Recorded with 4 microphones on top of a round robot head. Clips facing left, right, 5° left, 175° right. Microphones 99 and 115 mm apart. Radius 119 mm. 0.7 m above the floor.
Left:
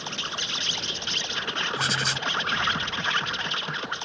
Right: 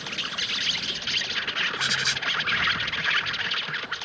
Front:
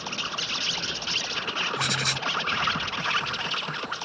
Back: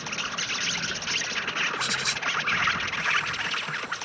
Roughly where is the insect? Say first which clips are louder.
Left 1 dB, front 1 dB; ahead left.